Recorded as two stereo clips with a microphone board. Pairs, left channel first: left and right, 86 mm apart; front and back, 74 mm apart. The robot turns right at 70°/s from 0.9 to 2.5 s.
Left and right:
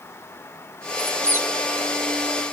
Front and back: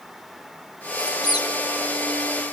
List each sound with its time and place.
1.0 s a squeak: 55° right, 1.5 m; by 1.5 s 20° right, 1.5 m